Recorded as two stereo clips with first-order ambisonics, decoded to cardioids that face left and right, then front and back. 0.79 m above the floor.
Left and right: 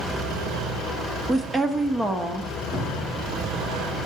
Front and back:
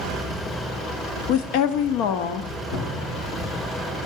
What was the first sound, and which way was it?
A woman speaking, 15° right.